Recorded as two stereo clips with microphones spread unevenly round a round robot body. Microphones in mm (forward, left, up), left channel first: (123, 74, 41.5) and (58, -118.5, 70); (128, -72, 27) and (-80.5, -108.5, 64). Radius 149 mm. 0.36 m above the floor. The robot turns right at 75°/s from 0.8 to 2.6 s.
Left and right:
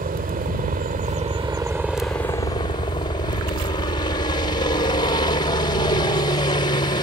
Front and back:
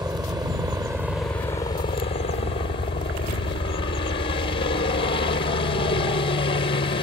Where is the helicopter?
100° right; by 7.0 s 35° left.